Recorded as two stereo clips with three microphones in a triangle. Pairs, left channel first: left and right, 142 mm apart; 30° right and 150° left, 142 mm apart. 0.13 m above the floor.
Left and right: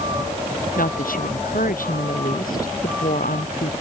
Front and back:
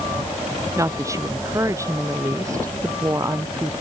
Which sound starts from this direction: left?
A woman speaking, at 0.8 s.